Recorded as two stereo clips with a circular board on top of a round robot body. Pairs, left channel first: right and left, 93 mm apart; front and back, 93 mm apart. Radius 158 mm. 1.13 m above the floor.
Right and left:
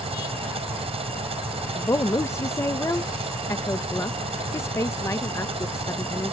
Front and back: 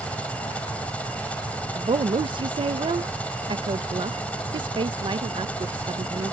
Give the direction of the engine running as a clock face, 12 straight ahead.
9 o'clock.